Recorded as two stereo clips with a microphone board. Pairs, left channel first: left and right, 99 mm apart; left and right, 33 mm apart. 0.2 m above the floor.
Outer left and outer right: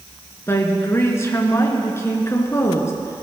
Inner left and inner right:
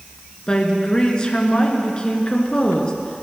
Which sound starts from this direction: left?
A woman speaking, at 0.5 s.